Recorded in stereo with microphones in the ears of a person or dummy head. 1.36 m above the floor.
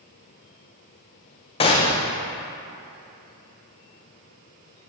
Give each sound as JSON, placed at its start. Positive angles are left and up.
{"t": 1.6, "sound": "a gunshot", "side_deg": 25, "distance_m": 0.6}